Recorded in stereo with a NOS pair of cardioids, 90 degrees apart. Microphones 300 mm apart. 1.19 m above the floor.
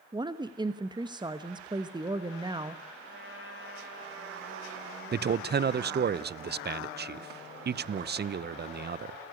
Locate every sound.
0.1 s a woman speaking: 15° right, 1.2 m
3.0 s a trumpet: 40° right, 7 m
5.1 s a man speaking: 35° right, 0.7 m